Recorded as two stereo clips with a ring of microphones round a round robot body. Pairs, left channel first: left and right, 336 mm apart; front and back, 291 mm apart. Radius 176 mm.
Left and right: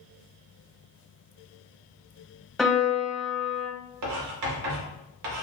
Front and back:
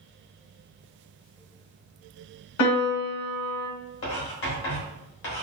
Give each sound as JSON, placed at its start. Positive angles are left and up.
{"t": 2.6, "sound": "a piano", "azimuth_deg": 0, "distance_m": 0.8}
{"t": 4.0, "sound": "writing", "azimuth_deg": -50, "distance_m": 0.9}